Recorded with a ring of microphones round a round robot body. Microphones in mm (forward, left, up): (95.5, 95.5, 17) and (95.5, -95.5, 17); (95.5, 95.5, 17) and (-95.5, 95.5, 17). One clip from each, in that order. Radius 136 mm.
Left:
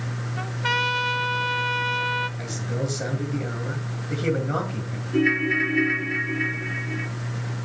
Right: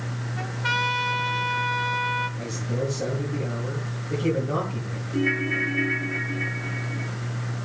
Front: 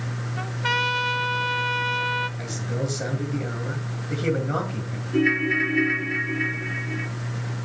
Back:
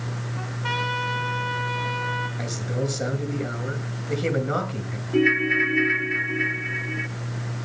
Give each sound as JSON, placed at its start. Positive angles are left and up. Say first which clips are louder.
{"t": 0.4, "sound": "a trumpet", "louder": "left 1 dB, front 4 dB", "azimuth_deg": 20, "distance_m": 1.9}
{"t": 2.4, "sound": "a man speaking", "louder": "right 1 dB, back 1 dB", "azimuth_deg": 125, "distance_m": 8.0}
{"t": 5.1, "sound": "a ringtone", "louder": "left 3 dB, back 2 dB", "azimuth_deg": 115, "distance_m": 1.3}